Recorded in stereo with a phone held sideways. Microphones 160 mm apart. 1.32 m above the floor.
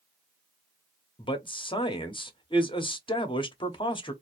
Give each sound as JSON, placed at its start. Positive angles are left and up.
{"t": 1.2, "sound": "a man speaking", "side_deg": 30, "distance_m": 0.9}